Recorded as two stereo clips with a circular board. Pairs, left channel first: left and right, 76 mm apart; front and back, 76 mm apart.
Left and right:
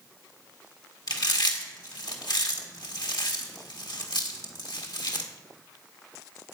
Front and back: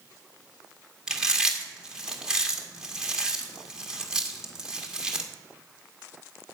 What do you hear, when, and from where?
1.1 s chewing: 100° left, 1.6 m